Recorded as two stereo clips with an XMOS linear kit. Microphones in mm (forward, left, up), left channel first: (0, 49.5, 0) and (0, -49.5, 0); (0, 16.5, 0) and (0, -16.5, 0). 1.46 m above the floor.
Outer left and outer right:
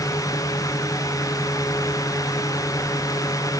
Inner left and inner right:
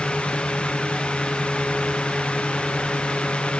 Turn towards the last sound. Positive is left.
No sound to turn to.